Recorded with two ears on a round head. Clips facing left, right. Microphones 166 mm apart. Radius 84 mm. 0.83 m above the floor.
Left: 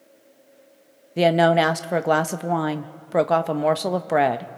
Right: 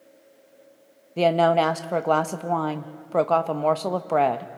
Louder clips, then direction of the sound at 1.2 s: Left 2 dB; 10° left (ahead or behind).